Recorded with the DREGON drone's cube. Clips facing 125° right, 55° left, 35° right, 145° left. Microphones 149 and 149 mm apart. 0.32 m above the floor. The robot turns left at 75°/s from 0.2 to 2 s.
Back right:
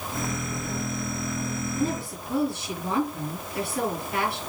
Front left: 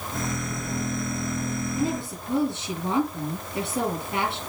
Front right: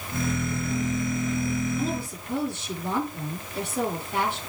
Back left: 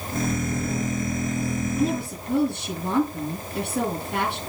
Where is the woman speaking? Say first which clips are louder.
Even, back left 5 dB; 135° left, 6.5 m; by 4.4 s 120° left, 6.5 m.